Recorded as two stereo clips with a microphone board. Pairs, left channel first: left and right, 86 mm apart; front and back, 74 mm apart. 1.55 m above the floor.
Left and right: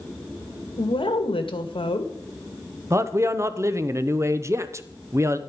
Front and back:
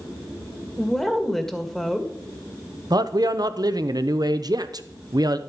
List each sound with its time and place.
0.8 s a woman speaking: 85° left, 1.7 m
2.9 s a man speaking: 150° right, 0.9 m